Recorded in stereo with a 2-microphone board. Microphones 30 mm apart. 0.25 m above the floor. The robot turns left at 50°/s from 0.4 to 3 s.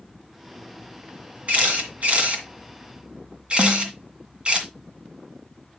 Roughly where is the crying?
No crying in this recording.